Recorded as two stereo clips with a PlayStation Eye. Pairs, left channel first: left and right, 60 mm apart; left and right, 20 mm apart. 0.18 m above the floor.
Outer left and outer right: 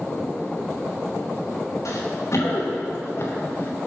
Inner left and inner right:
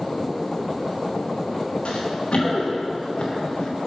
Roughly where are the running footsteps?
Left.